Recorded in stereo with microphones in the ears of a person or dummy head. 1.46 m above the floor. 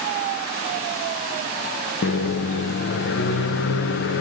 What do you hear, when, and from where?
2.0 s a microwave: 65° left (ahead or behind), 0.6 m